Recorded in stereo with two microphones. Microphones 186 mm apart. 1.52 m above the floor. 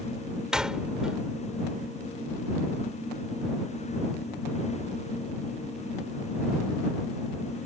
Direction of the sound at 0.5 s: 5° right (ahead or behind).